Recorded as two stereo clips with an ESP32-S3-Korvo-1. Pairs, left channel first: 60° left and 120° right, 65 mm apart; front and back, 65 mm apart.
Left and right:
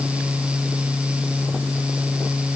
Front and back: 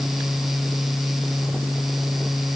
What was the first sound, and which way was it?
Only background noise.